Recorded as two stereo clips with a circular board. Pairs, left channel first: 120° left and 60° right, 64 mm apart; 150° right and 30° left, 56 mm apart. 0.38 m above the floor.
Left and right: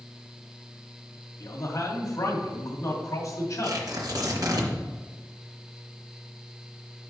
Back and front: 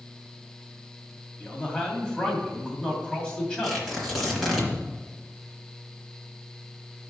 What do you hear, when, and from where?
1.4 s a man speaking: 135° left, 2.5 m
3.6 s tearing paper: 60° right, 2.5 m